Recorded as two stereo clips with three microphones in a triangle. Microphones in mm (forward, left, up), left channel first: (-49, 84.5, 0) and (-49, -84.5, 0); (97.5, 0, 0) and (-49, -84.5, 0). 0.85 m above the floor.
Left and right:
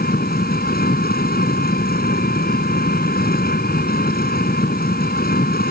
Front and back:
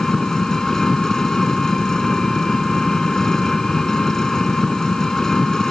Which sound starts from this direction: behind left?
An engine running, at 0.0 s.